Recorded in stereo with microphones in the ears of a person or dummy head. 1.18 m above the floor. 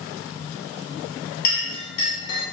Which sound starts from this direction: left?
A clink, at 1.4 s.